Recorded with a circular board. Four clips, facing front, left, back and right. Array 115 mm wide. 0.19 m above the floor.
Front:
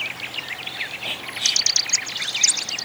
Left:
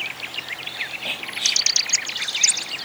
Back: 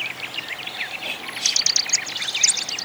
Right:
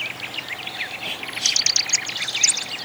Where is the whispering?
55° left, 1.0 m.